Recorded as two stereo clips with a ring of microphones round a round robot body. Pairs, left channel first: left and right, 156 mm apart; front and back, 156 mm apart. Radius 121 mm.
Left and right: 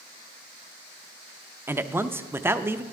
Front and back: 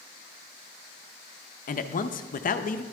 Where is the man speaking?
15° right, 0.6 m.